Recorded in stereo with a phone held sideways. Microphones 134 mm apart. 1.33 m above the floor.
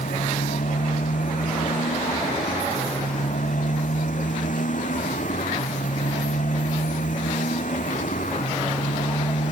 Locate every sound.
0.0 s a motorcycle: 80° left